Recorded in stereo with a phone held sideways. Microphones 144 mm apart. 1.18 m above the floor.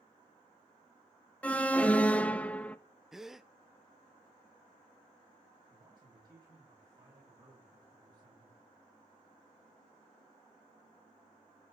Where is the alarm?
10° left (ahead or behind), 0.8 m.